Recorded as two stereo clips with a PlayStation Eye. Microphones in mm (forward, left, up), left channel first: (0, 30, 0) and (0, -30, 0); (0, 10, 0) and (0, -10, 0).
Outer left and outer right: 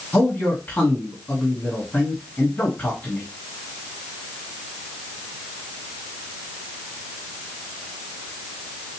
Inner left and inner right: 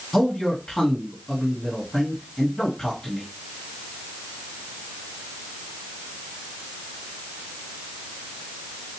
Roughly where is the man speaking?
Left.